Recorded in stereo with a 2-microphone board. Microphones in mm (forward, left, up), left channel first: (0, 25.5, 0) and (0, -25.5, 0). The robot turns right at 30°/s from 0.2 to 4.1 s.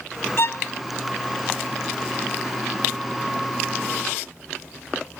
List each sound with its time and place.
0.4 s a violin: 55° left (ahead or behind), 0.6 m